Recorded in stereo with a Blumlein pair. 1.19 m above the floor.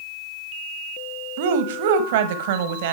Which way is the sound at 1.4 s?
55° right.